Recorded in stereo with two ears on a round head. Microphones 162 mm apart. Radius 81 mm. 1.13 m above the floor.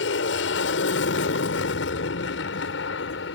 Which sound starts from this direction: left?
An aircraft, at 0.0 s.